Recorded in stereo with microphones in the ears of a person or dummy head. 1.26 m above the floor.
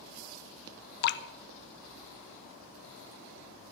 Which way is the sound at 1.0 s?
55° left (ahead or behind).